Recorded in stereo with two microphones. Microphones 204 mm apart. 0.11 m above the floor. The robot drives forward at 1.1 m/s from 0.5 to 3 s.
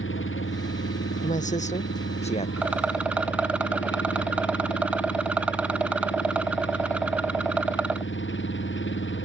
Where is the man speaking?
40° left (ahead or behind); by 2.5 s 30° left (ahead or behind).